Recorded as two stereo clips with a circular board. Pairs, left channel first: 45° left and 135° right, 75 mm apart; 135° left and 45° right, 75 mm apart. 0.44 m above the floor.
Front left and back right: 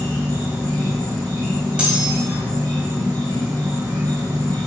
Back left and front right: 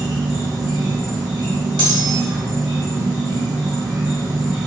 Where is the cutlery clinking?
60° right, 1.2 m.